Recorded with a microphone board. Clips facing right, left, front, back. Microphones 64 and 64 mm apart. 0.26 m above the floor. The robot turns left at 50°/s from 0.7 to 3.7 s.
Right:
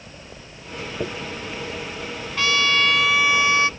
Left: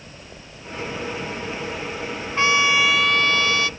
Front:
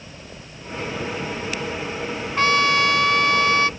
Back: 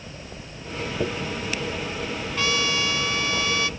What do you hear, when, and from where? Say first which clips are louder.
1.0 s a dropped coin: right 5 dB, back 6 dB; 135° right; by 1.1 s 140° right
2.4 s a trumpet: left 2 dB, front 8 dB; 35° left; by 3.7 s 35° right